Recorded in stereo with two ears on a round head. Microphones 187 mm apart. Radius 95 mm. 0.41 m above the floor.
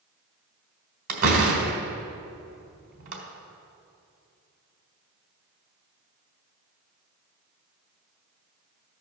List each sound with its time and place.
1.1 s a door slam: 45° right (ahead or behind), 1.7 m